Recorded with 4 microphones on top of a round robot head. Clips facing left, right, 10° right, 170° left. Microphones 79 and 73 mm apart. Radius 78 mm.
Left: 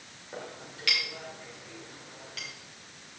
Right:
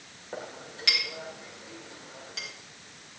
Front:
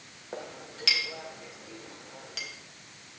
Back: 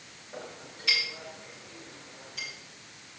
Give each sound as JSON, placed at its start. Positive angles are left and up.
{"t": 0.3, "sound": "a clink", "azimuth_deg": -25, "distance_m": 2.0}